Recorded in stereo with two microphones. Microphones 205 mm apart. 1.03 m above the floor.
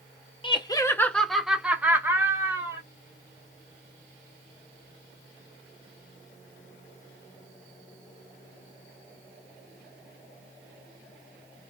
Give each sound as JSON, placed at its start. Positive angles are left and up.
{"t": 0.4, "sound": "laughter", "side_deg": 25, "distance_m": 0.6}